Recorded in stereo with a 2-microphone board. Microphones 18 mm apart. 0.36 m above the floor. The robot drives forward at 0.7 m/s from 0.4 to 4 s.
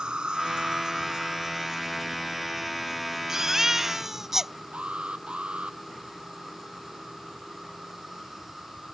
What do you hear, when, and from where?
0.0 s an insect: 55° right (ahead or behind); by 8.9 s 15° right (ahead or behind)
3.3 s a baby crying: 25° right (ahead or behind); by 4.5 s 20° right (ahead or behind)
4.7 s an alarm: 75° right (ahead or behind)